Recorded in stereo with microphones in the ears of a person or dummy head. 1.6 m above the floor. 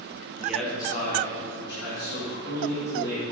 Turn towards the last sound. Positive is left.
turn(degrees=70)  # may be behind; listen again after turning